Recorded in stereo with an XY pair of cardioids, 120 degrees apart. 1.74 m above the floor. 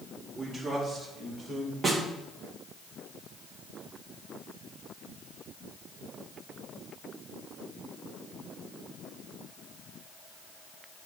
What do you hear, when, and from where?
0.3 s a man speaking: 25° right, 4 m; by 1.7 s 50° right, 2.5 m
1.8 s a snare drum: 30° right, 2 m